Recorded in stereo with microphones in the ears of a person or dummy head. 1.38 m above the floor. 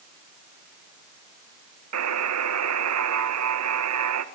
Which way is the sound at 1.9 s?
85° right.